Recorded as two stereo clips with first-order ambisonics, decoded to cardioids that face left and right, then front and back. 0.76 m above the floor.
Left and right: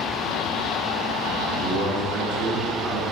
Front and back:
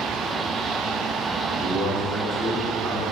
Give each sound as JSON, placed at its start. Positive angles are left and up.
{"t": 1.5, "sound": "a man speaking", "azimuth_deg": -105, "distance_m": 2.5}